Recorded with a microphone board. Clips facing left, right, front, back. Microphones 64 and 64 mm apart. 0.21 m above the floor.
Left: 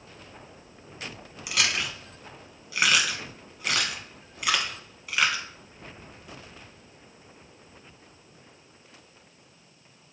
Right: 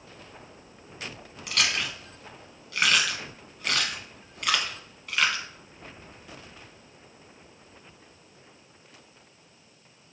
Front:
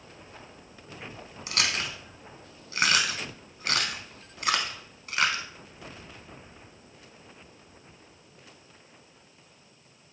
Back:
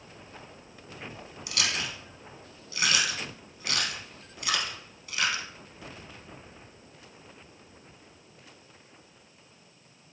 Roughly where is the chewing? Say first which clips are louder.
Even, front 2 dB; ahead.